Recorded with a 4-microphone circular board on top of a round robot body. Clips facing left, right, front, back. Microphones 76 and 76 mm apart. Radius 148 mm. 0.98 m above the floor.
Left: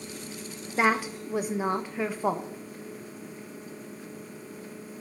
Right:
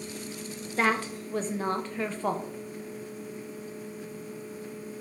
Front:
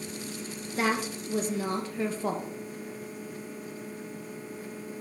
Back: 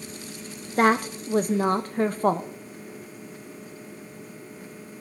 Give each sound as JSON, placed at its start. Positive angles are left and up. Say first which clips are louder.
{"t": 0.8, "sound": "a woman speaking", "louder": "left 2 dB, back 8 dB", "azimuth_deg": 165, "distance_m": 0.6}